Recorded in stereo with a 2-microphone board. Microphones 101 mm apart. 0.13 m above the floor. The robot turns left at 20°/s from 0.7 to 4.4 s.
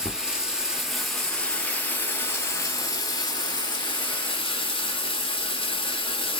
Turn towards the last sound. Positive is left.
turn(degrees=110)